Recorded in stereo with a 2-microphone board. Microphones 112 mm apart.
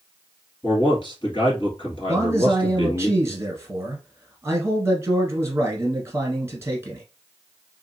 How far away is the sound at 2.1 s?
About 1.1 m.